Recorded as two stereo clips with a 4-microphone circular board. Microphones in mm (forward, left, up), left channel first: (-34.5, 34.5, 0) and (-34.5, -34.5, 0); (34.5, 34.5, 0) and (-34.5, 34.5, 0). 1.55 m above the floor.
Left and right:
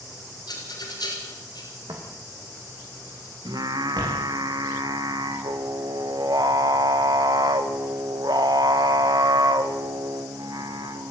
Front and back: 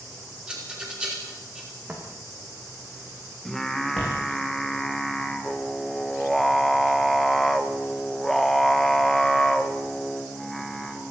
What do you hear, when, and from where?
0.5 s a rattle: 105° left, 5.5 m
1.9 s footsteps: 105° right, 5.5 m; by 4.2 s 75° right, 5.5 m
3.5 s singing: 85° right, 1.4 m